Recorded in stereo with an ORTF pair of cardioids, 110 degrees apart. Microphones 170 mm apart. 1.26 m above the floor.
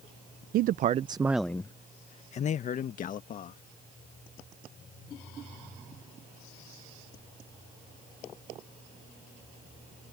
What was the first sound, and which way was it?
A man speaking, 65° right.